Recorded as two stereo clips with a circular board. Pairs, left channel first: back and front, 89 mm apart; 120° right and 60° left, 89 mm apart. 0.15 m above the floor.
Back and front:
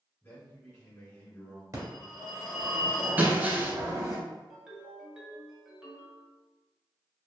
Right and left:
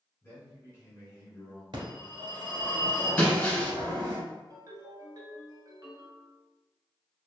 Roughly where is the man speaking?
Behind right.